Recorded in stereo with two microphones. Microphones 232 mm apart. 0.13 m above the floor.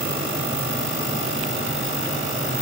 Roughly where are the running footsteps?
I don't hear running footsteps.